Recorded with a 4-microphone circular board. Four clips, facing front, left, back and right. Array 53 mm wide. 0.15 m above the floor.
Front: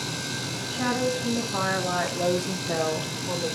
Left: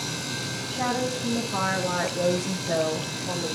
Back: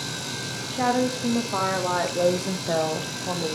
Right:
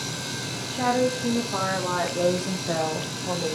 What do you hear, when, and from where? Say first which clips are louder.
0.7 s a woman speaking: right 4 dB, back 3 dB; 170° right, 6 m; by 3.6 s 150° right, 4 m